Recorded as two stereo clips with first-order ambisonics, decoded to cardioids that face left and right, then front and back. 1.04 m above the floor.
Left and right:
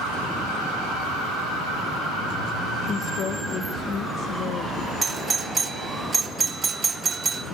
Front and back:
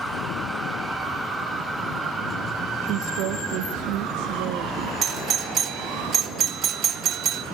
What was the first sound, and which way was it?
A woman speaking, 145° left.